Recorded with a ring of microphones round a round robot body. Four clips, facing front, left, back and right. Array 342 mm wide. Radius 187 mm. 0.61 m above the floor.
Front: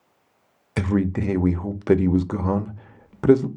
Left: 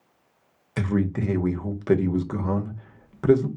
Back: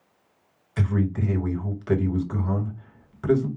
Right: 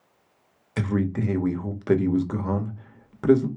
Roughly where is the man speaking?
Ahead.